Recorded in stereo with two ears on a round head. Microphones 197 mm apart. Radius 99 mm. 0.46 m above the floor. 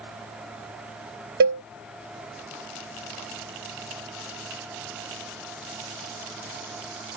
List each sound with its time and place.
1.4 s a cowbell: 40° right (ahead or behind)